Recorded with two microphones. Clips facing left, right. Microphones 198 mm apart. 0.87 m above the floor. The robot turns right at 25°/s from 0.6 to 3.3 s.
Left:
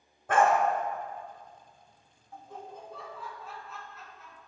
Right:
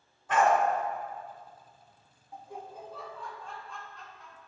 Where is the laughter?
15° right (ahead or behind), 0.9 m; by 4.4 s 5° left (ahead or behind), 0.9 m.